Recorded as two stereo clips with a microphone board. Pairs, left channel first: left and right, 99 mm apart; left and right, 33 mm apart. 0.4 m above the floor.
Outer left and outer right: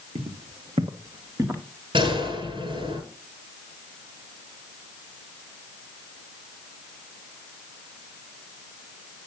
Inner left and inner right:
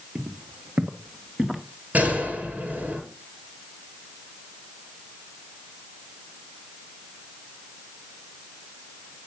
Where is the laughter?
I don't hear laughter.